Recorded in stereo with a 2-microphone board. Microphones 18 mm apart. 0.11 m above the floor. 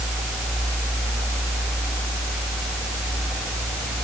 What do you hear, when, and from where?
Only background noise.